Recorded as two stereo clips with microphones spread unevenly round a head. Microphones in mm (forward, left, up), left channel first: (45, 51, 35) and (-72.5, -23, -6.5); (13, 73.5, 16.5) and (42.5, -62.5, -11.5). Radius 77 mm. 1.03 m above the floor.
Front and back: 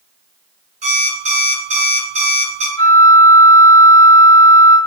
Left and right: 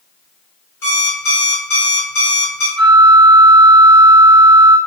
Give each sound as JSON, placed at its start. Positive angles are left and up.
{"t": 0.8, "sound": "an alarm clock", "azimuth_deg": 175, "distance_m": 1.5}
{"t": 2.8, "sound": "a flute", "azimuth_deg": -20, "distance_m": 1.1}